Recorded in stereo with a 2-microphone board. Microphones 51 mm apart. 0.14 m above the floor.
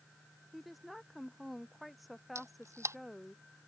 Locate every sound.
0.5 s a woman speaking: centre (ahead or behind)
2.4 s a camera shutter: 75° right (ahead or behind)